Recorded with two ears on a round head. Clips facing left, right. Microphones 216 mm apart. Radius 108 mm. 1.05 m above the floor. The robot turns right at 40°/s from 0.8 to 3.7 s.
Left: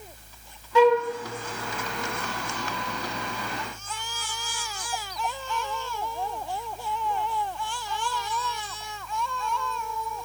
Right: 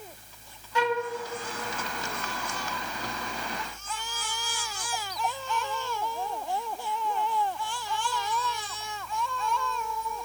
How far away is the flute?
About 1.2 m.